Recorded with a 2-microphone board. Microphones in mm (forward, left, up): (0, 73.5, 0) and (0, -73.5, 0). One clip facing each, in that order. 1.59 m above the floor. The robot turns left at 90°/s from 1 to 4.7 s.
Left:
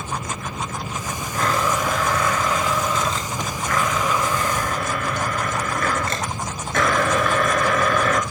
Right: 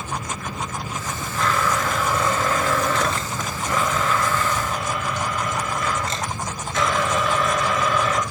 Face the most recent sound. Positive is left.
turn(degrees=120)